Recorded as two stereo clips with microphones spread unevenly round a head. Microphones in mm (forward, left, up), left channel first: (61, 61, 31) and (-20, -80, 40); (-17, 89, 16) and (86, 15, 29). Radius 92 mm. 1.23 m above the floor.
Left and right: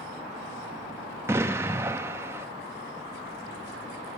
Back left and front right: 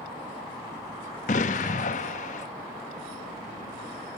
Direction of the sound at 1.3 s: 170° left.